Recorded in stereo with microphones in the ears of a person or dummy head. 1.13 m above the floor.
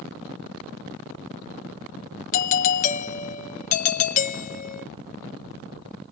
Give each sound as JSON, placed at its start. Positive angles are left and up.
{"t": 2.3, "sound": "a doorbell", "side_deg": 40, "distance_m": 0.7}